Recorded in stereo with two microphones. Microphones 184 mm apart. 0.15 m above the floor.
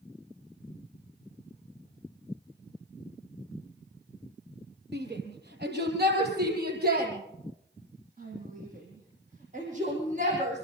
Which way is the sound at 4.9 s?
70° right (ahead or behind).